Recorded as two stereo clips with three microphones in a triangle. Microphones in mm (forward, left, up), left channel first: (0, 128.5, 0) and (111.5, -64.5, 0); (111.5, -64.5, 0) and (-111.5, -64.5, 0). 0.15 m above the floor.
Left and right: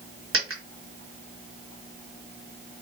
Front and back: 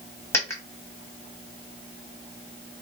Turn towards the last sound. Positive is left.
turn(degrees=-80)